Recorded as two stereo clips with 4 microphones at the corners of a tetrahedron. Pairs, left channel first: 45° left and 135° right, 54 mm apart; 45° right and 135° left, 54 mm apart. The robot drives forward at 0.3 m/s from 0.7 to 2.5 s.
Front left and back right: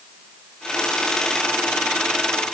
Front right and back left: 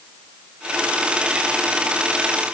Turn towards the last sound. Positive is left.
No sound to turn to.